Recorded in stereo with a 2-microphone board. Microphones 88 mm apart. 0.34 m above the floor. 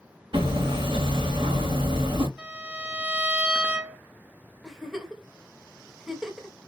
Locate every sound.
0.3 s hammering: 70° right (ahead or behind), 1.3 m
2.4 s a violin: 15° right (ahead or behind), 0.9 m
4.6 s a giggle: 5° right (ahead or behind), 0.8 m